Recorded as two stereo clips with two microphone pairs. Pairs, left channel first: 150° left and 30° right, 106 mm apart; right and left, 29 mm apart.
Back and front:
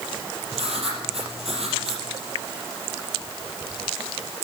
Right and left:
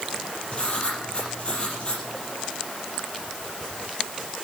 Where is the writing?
40° right, 4.5 m.